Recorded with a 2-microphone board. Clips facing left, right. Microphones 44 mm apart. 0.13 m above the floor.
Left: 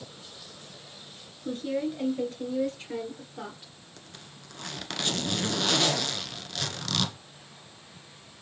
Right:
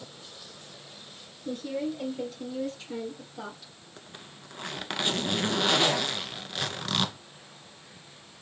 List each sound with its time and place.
1.4 s a woman speaking: 40° left (ahead or behind), 2 m; by 3.7 s 25° left (ahead or behind), 3 m
4.0 s a zipper: 20° right (ahead or behind), 0.6 m